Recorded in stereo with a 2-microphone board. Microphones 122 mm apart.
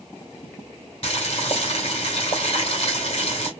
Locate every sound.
1.0 s boiling: 50° left (ahead or behind), 3 m